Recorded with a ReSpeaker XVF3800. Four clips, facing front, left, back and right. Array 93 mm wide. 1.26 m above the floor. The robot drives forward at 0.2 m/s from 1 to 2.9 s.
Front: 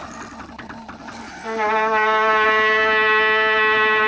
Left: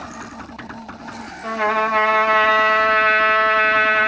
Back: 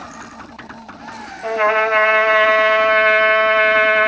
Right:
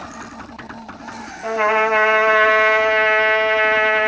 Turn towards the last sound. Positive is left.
turn(degrees=-155)